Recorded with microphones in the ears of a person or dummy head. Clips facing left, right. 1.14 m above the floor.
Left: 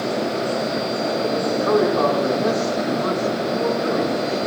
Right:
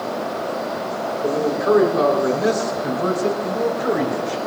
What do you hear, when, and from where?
1.2 s a man speaking: 25° right (ahead or behind), 4.5 m; by 4.4 s 55° right (ahead or behind), 5 m